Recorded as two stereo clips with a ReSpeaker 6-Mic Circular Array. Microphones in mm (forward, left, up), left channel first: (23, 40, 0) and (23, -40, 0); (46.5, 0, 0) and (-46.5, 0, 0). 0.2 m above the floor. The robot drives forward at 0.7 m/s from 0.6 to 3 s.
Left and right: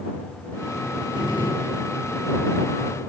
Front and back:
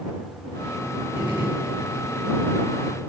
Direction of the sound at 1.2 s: 110° left.